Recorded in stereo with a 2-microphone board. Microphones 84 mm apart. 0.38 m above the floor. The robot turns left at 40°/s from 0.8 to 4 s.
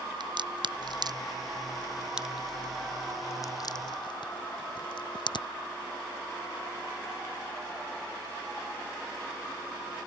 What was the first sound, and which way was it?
A crack, 65° right (ahead or behind).